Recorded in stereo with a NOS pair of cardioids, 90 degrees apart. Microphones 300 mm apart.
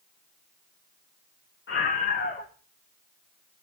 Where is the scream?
40° left, 2 m.